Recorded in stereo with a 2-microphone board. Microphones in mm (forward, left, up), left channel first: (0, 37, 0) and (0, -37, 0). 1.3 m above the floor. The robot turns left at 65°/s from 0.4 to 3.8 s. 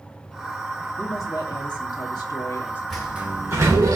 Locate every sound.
1.0 s a woman speaking: 145° left, 2 m; by 2.8 s 30° left, 2 m
2.9 s a sliding door: 5° left, 2.5 m; by 4.0 s 55° right, 2.5 m